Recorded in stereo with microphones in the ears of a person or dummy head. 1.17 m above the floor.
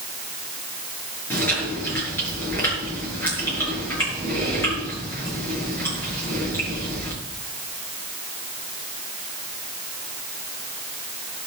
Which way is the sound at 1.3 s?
10° left (ahead or behind).